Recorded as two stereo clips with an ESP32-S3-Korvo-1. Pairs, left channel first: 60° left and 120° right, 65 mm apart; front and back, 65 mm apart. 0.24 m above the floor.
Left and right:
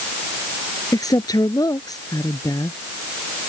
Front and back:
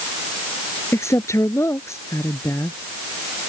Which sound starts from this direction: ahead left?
A woman speaking, at 0.9 s.